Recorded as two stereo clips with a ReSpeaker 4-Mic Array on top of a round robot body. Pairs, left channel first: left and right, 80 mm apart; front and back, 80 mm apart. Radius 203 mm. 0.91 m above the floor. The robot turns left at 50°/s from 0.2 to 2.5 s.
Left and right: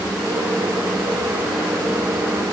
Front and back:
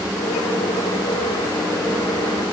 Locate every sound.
Only background noise.